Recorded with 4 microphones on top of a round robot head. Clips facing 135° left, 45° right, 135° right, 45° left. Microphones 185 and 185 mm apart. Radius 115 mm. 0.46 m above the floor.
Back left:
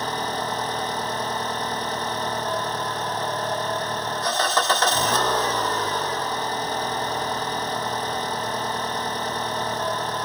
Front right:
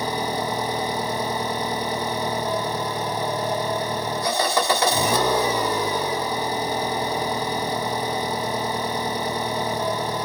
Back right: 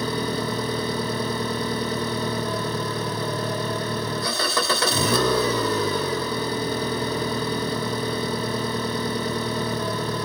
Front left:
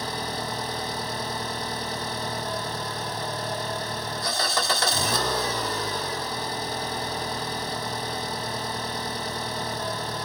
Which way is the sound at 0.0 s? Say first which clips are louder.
Front right 3 dB, back right 7 dB; 125° right.